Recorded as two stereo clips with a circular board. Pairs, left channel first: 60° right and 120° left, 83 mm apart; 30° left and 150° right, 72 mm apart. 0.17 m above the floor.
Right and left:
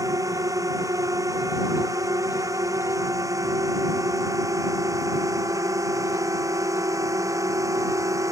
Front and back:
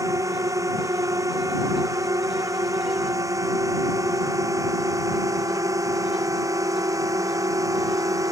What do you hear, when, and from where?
0.0 s a drone: 170° left